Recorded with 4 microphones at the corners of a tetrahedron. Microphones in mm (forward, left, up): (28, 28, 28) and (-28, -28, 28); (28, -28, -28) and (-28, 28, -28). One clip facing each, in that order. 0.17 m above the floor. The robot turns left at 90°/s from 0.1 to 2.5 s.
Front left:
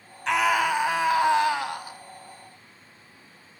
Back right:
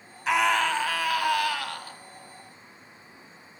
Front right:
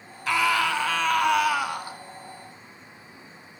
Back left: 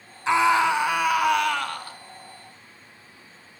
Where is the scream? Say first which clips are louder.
Front left 1 dB, back left 4 dB; 140° left, 1.1 m; by 2.0 s 15° right, 1.1 m.